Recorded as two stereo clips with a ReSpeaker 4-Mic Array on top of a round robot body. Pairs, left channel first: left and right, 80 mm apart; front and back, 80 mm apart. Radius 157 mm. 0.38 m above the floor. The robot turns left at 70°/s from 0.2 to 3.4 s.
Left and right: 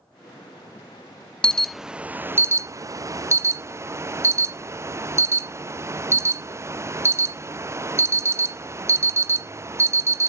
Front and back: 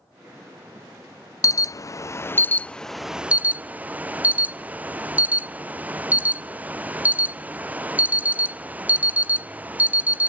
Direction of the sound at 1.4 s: 20° left.